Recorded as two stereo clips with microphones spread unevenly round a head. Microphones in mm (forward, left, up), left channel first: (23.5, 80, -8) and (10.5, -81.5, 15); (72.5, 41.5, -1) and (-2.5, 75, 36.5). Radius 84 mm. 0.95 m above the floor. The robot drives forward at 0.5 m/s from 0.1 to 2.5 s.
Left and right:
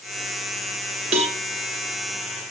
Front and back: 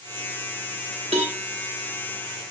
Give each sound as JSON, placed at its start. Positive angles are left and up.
{"t": 1.1, "sound": "a cowbell", "azimuth_deg": -150, "distance_m": 1.0}